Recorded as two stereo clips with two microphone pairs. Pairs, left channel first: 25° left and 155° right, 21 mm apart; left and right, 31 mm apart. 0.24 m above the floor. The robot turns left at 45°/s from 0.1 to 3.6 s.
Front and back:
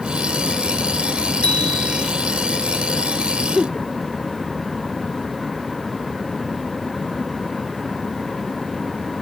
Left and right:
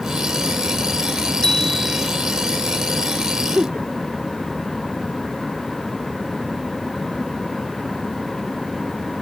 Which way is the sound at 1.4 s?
20° left.